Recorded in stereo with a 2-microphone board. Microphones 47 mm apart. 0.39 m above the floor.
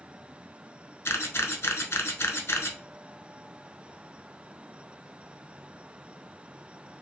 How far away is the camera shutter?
About 0.7 m.